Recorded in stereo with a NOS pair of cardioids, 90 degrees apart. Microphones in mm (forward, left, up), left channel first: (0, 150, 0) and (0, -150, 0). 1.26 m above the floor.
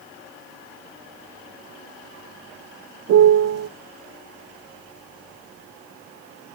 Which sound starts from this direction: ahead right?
A piano, at 3.1 s.